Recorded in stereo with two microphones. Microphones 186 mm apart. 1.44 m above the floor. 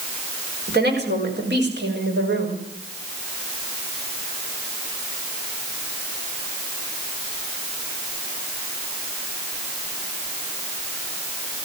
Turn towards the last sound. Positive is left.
turn(degrees=-85)